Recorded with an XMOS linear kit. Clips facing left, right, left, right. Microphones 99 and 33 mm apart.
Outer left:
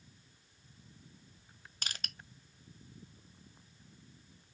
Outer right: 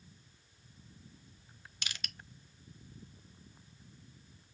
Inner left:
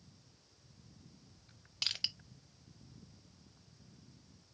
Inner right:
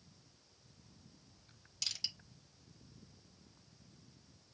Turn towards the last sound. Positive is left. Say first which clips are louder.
# outer left 1 dB, inner left 4 dB
turn(degrees=40)  # may be behind; listen again after turning